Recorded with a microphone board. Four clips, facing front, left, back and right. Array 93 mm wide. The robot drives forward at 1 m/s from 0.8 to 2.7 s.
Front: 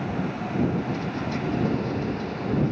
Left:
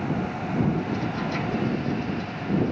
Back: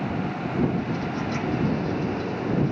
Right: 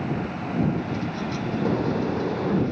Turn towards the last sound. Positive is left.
turn(degrees=-105)